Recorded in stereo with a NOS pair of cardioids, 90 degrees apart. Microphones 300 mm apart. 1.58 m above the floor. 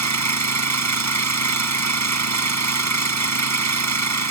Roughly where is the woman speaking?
No woman speaking in this recording.